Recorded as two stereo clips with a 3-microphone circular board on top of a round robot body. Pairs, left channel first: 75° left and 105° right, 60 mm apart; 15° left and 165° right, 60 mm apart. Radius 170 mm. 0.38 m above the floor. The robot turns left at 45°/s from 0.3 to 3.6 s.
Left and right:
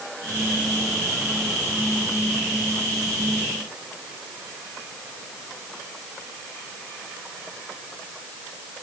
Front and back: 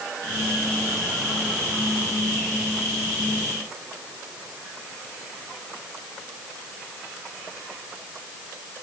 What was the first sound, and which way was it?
Only background noise.